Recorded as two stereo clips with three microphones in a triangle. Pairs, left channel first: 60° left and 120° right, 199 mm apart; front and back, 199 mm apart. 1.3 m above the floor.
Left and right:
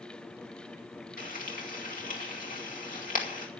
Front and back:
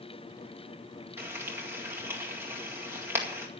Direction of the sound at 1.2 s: 100° left.